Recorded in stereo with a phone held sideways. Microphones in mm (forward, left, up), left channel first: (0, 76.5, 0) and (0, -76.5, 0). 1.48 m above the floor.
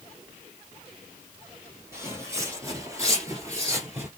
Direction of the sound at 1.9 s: 15° right (ahead or behind).